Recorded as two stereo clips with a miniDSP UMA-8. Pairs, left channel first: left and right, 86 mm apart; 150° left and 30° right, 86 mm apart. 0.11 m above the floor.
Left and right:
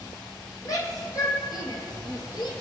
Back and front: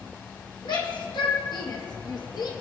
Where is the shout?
135° left, 5 m; by 2.5 s 120° left, 4 m.